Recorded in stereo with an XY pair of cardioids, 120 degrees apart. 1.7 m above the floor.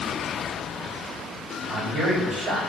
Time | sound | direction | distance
1.7 | a man speaking | 40° right | 3.5 m